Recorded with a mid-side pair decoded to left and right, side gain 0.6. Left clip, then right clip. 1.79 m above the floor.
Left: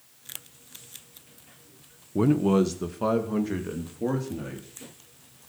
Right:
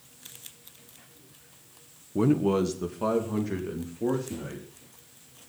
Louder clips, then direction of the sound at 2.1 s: Left 1 dB; 5° left.